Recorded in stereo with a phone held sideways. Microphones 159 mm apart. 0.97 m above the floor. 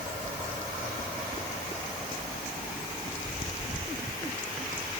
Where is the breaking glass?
I don't hear breaking glass.